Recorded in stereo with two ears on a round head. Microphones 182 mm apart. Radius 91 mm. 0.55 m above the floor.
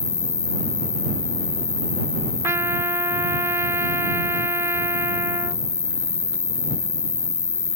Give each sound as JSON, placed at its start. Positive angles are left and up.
{"t": 0.0, "sound": "an insect", "side_deg": 20}
{"t": 2.4, "sound": "a trumpet", "side_deg": -15}